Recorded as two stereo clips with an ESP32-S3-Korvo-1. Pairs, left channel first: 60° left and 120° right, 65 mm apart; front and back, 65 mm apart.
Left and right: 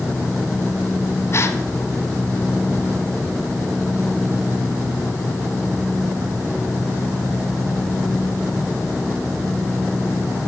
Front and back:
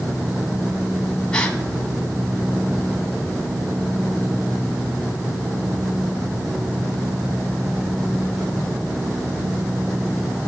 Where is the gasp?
70° left, 2 m.